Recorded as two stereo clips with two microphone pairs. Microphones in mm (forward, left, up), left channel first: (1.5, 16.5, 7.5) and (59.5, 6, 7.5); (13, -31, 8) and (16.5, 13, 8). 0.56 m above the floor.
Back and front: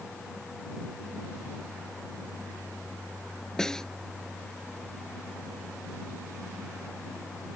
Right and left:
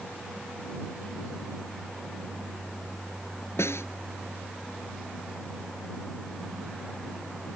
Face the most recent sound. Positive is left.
turn(degrees=-110)